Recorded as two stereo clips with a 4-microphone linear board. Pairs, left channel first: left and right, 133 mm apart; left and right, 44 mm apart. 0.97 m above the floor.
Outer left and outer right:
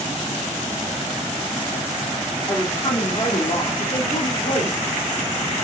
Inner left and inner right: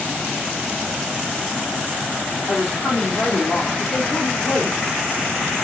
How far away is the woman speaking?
About 2.5 m.